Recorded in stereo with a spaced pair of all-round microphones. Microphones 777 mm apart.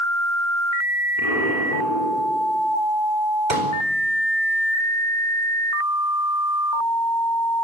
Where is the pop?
70° right (ahead or behind), 4.5 m.